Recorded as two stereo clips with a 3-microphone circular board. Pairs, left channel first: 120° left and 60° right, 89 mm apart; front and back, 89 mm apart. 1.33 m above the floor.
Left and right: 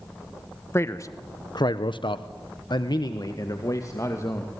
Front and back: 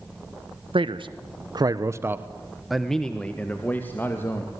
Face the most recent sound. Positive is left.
turn(degrees=65)